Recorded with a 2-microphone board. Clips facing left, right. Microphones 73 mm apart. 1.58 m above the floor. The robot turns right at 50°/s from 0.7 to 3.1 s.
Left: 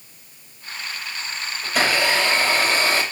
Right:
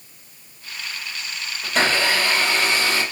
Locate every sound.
1.6 s a blender: straight ahead, 3 m; by 3.0 s 70° left, 3 m